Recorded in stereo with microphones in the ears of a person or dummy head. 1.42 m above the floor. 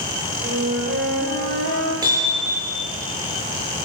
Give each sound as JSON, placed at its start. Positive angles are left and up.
{"t": 0.4, "sound": "a flute", "side_deg": -60, "distance_m": 6.5}
{"t": 2.0, "sound": "hammering", "side_deg": -20, "distance_m": 7.0}